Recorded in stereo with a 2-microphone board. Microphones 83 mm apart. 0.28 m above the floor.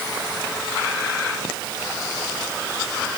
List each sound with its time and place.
Only background noise.